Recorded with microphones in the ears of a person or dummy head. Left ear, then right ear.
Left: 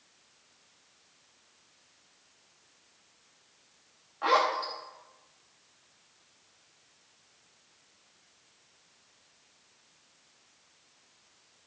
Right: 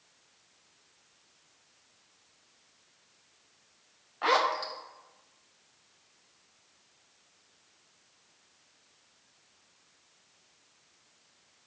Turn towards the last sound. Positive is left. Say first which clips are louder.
# left 1 dB
turn(degrees=-20)  # may be behind; listen again after turning